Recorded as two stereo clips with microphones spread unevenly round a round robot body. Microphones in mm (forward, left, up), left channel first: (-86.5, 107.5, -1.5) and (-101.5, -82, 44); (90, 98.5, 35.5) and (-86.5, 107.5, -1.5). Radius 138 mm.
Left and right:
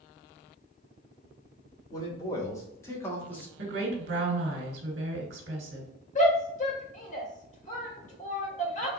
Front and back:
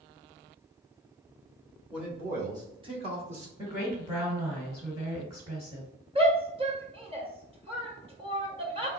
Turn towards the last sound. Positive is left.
turn(degrees=125)